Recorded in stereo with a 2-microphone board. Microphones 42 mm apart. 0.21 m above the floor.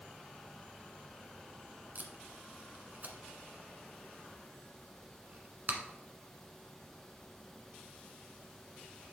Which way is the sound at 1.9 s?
50° right (ahead or behind).